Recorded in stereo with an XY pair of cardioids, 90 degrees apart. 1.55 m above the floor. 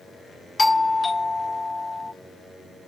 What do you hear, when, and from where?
0.6 s a doorbell: 30° left, 0.9 m